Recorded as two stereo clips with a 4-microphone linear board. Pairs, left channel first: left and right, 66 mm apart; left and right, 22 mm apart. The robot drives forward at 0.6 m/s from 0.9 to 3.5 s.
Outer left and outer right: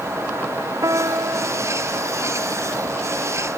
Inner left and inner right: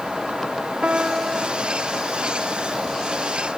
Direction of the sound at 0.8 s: 60° right (ahead or behind).